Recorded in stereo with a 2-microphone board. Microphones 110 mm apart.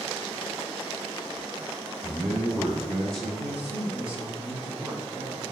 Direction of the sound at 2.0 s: 5° left (ahead or behind).